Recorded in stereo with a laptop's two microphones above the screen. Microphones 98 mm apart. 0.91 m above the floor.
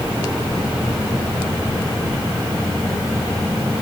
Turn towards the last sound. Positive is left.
No sound to turn to.